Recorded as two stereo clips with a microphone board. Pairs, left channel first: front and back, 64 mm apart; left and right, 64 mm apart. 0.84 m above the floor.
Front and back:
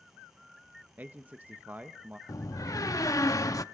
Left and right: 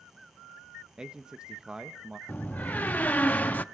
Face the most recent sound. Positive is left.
turn(degrees=25)